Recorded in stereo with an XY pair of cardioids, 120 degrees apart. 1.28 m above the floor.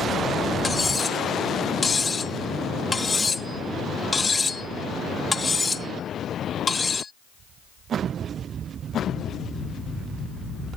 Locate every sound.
0.6 s cutlery clinking: 25° left